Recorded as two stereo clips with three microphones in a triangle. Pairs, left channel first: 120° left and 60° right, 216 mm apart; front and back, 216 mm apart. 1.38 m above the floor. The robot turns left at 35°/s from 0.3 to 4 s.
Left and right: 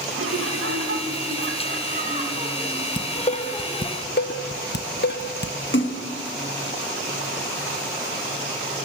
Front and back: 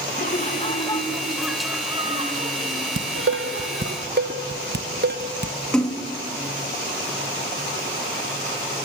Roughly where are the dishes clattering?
Behind.